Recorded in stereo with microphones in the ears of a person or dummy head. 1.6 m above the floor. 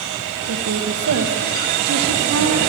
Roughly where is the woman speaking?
Right.